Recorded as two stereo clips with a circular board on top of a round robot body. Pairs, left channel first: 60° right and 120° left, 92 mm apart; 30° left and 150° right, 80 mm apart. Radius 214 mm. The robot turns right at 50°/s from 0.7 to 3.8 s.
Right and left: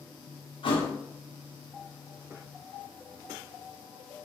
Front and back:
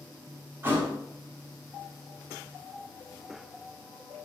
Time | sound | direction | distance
0.6 | a thud | 85° right | 1.0 m